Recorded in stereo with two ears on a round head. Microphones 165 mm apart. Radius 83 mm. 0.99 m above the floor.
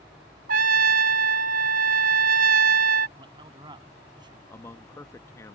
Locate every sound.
0.5 s a trumpet: 50° right (ahead or behind)
3.2 s a man speaking: 25° right (ahead or behind)
4.5 s a man speaking: 15° left (ahead or behind)